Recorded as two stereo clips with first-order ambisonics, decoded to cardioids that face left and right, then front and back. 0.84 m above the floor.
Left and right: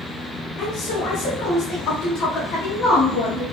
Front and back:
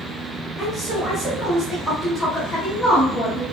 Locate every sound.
0.6 s a woman speaking: 100° left, 1.1 m